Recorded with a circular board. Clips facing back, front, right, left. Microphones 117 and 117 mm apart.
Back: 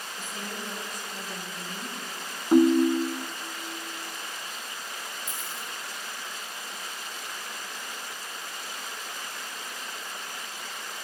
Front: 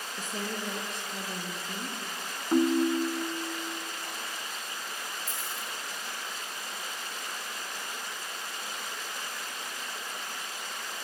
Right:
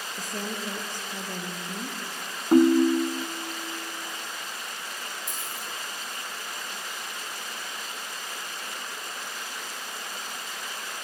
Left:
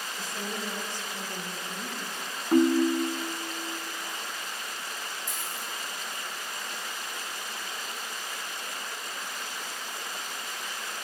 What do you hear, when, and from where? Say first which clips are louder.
0.2 s a woman speaking: front 3 dB, right 2 dB; 45° right, 4 m; by 2.0 s 65° right, 5 m
2.5 s a ringtone: back 5 dB, right 4 dB; 135° right, 0.5 m
5.3 s a dropped coin: even, even; 55° right, 6 m